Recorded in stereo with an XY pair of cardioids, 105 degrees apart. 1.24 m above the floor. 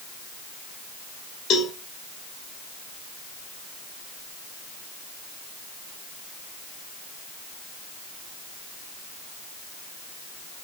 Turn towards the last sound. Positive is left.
turn(degrees=65)